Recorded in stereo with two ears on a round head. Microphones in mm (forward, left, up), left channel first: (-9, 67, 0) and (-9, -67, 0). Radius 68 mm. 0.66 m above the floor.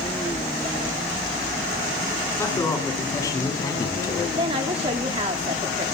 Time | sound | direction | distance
2.4 | a man speaking | 20° left (ahead or behind) | 6.5 m
4.4 | a woman speaking | 35° right (ahead or behind) | 1.3 m